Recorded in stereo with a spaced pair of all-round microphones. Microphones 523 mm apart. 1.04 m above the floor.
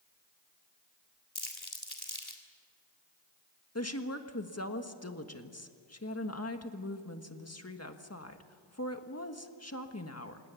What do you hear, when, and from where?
1.4 s crumpling: 50° left (ahead or behind), 3.5 m
3.8 s a woman speaking: 30° left (ahead or behind), 1.6 m